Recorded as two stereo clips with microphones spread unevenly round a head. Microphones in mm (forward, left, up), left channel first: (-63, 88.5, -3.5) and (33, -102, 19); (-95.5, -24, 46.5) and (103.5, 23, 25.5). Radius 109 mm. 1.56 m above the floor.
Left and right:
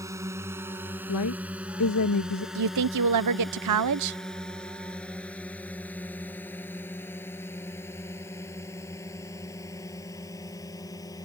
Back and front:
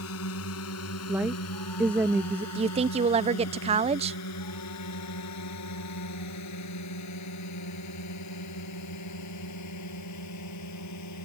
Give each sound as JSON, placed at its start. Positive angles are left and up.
{"t": 0.0, "sound": "a drone", "azimuth_deg": -140}
{"t": 1.1, "sound": "a woman speaking", "azimuth_deg": 95}
{"t": 2.5, "sound": "a woman speaking", "azimuth_deg": -50}